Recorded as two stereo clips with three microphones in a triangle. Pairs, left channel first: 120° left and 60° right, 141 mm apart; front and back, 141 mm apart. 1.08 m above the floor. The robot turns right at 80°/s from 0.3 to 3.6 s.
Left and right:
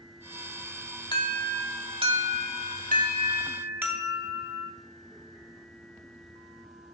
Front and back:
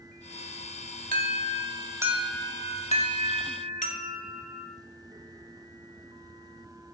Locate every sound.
1.1 s an alarm: straight behind, 2.5 m; by 4.7 s 15° left, 2.5 m